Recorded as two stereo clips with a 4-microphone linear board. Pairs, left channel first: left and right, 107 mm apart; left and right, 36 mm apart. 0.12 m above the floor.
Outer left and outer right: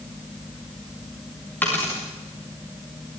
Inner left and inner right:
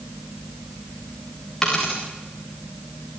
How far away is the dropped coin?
About 7 m.